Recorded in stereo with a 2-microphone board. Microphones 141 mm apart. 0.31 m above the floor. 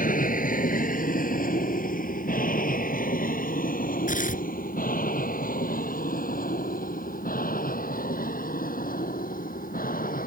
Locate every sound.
0.0 s an aircraft: 75° left (ahead or behind); by 10.3 s 85° left
4.1 s tearing paper: 75° left (ahead or behind)